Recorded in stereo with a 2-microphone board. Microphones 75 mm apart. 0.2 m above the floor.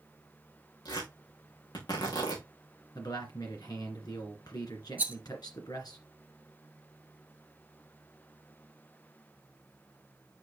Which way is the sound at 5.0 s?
25° right (ahead or behind).